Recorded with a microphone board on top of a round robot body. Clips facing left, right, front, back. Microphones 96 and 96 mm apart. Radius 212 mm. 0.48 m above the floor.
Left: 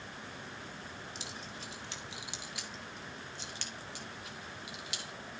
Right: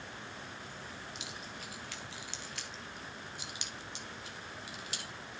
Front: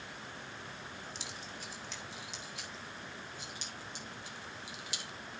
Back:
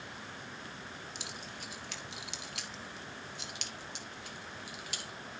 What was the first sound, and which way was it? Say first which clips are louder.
Keys jangling: even, back 1 dB; 145° left.